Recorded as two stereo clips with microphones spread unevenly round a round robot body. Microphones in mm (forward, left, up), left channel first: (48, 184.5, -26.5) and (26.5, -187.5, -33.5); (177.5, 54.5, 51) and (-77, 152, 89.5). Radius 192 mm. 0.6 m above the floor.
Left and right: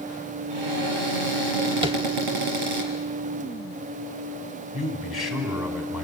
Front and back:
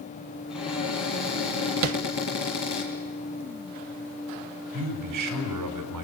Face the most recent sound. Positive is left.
turn(degrees=175)